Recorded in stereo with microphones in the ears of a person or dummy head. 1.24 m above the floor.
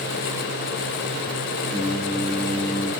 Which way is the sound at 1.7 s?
Centre (ahead or behind).